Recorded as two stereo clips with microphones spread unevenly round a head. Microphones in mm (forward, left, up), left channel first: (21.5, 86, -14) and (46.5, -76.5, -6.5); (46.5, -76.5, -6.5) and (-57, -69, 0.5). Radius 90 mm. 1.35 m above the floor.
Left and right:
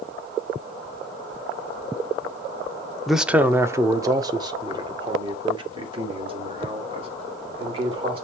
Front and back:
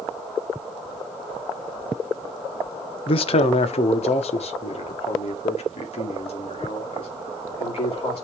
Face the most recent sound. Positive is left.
turn(degrees=-25)